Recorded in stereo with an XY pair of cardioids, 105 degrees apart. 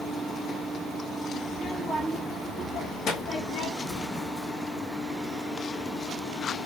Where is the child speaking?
30° left, 1.5 m; by 3.7 s 80° left, 1.2 m.